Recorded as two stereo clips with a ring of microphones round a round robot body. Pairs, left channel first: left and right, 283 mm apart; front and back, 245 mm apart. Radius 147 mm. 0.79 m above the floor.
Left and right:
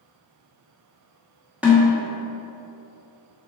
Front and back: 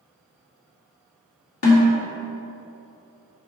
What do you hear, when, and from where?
1.6 s a snare drum: 5° right, 2 m